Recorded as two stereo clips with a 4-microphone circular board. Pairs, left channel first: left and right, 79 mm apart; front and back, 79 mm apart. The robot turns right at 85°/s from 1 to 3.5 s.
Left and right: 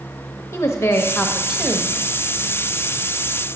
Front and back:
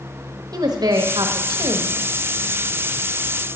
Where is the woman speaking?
145° left, 1.1 m; by 2.0 s 130° right, 1.1 m.